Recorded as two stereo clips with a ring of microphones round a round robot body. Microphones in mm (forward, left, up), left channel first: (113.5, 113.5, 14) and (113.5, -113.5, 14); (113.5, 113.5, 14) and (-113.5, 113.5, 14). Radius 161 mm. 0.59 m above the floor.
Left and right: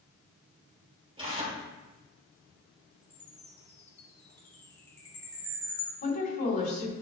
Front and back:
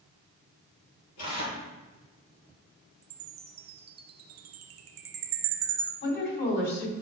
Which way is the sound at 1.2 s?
20° right.